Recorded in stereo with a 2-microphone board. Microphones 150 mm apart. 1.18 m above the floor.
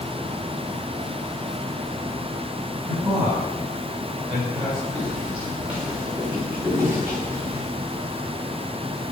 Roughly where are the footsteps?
Centre.